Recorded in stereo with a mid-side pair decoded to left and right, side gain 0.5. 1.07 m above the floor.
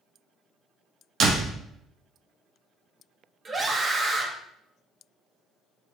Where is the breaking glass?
I don't hear breaking glass.